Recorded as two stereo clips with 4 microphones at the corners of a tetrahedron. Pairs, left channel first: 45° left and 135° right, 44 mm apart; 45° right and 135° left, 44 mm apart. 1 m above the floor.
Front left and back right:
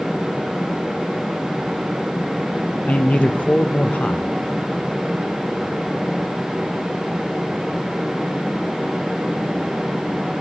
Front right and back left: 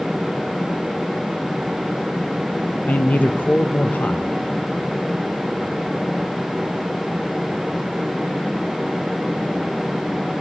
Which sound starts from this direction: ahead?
A man speaking, at 2.9 s.